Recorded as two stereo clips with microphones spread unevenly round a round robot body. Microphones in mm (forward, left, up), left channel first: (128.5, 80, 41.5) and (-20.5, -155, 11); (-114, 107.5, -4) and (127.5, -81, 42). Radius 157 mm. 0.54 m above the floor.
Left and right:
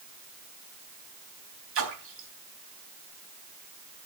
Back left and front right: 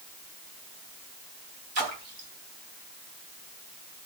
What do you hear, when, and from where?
1.8 s a splash: 85° right, 3.5 m